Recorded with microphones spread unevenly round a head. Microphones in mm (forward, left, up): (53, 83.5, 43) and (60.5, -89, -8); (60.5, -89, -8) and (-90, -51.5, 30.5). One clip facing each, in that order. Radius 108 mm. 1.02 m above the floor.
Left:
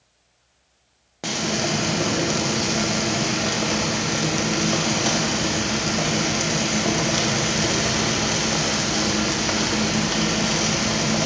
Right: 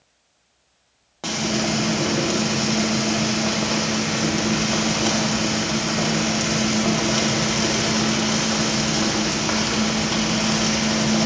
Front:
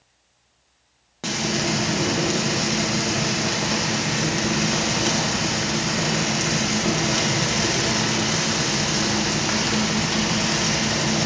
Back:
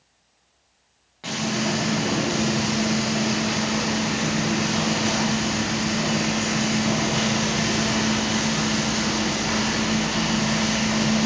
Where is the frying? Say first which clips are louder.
Right 2 dB, front 1 dB; 10° left, 1.1 m.